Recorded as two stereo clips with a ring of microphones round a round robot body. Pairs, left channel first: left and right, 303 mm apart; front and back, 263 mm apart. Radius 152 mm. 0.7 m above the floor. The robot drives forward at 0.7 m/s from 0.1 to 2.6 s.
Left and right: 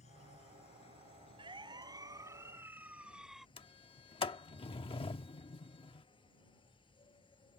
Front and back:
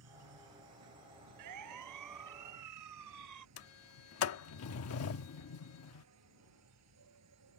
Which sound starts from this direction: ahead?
A sliding door, at 3.6 s.